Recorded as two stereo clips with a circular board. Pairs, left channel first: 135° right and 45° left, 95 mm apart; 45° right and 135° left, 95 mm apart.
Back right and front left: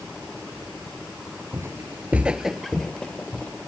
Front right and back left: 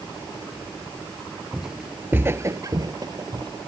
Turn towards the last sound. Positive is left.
turn(degrees=155)